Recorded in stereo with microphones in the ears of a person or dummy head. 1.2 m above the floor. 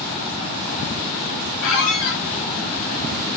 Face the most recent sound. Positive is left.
turn(degrees=55)  # may be behind; listen again after turning